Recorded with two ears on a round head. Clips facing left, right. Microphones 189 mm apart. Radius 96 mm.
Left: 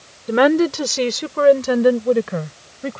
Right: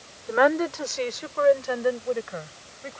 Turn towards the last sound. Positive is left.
turn(degrees=65)  # may be behind; listen again after turning